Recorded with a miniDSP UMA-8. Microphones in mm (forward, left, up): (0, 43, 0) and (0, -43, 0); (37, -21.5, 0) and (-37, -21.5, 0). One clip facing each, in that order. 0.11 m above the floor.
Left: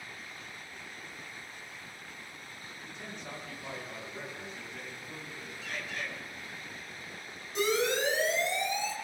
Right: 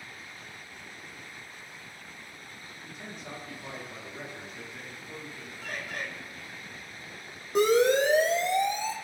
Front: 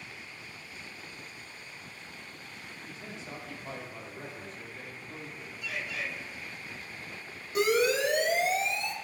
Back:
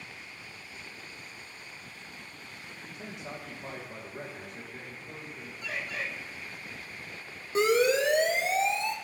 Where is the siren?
125° right, 4.5 m; by 8.9 s 130° right, 6 m.